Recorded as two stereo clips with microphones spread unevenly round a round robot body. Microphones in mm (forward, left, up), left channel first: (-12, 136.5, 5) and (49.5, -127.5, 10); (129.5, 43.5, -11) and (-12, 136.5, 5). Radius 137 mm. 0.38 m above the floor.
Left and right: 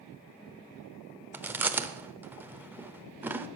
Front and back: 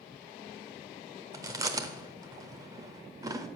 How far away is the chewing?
About 0.7 m.